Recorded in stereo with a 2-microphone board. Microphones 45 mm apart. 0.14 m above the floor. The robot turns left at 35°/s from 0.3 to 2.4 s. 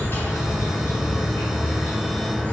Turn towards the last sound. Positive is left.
turn(degrees=45)